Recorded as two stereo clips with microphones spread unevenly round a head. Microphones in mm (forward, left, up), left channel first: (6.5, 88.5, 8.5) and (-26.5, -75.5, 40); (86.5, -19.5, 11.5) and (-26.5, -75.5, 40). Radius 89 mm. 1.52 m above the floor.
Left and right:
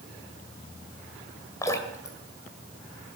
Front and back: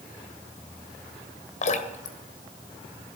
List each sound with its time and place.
1.6 s dripping: straight ahead, 2 m